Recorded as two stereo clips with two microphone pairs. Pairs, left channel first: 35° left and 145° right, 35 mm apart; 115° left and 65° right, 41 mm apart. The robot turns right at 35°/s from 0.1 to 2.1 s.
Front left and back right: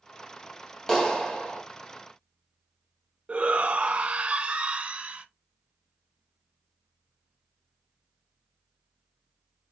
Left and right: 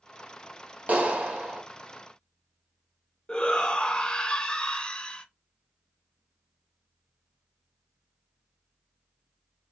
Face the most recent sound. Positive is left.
turn(degrees=170)